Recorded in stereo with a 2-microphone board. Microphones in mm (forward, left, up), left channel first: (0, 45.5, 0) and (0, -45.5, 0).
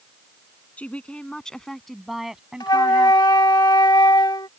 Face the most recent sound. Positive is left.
turn(degrees=55)  # may be behind; listen again after turning